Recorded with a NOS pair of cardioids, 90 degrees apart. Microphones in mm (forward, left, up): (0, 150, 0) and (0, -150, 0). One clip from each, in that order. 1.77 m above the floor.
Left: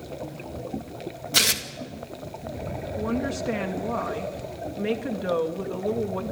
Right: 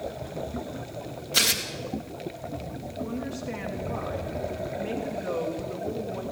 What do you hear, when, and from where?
1.3 s tearing paper: 30° left, 2 m
3.0 s a woman speaking: 50° left, 3 m